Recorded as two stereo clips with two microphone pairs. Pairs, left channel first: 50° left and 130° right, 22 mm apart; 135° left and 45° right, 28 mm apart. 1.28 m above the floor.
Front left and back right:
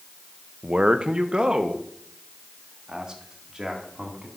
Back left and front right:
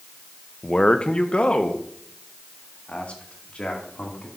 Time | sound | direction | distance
0.6 | a man speaking | 170° right | 0.6 m